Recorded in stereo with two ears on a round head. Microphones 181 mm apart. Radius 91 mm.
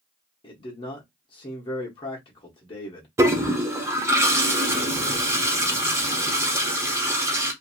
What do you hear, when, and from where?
0.4 s a man speaking: 25° left (ahead or behind), 0.9 m
3.2 s a toilet flushing: 15° right (ahead or behind), 0.7 m